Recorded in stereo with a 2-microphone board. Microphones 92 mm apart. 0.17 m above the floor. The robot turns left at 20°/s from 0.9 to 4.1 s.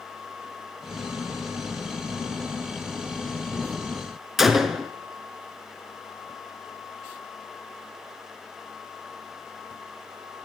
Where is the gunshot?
5° right (ahead or behind), 0.6 m.